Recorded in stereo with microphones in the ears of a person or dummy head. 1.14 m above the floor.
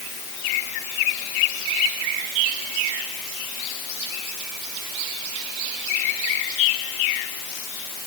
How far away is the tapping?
I don't hear tapping.